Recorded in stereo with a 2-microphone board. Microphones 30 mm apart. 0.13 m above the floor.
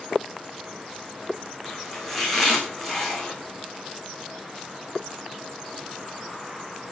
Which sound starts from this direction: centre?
Chopping, at 1.6 s.